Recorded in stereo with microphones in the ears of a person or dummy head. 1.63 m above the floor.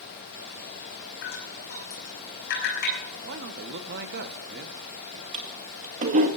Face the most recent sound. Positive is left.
turn(degrees=-35)  # may be behind; listen again after turning